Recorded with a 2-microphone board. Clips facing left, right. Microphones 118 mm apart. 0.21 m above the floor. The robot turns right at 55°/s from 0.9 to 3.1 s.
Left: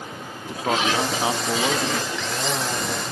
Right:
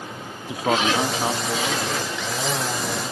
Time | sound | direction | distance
0.5 | a man speaking | 10° right | ?